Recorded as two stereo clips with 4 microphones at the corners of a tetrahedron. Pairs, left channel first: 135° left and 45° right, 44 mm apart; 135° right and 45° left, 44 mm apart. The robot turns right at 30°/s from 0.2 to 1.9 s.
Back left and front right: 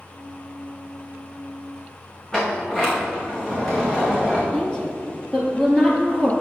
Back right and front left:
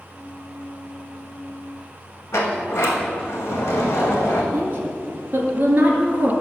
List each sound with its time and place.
2.3 s a sliding door: 155° right, 1.7 m
4.5 s a woman speaking: 70° left, 2 m